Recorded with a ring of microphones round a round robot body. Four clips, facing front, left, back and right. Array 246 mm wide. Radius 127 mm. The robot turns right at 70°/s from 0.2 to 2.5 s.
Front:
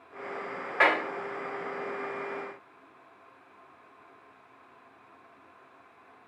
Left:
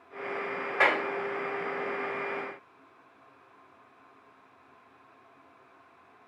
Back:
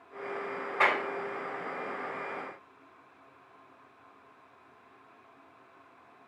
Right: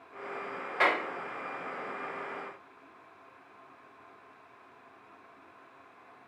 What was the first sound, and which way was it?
A clap, 15° left.